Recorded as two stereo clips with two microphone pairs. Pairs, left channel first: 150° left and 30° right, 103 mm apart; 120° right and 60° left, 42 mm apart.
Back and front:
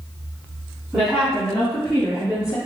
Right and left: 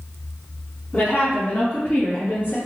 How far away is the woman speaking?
About 1.4 m.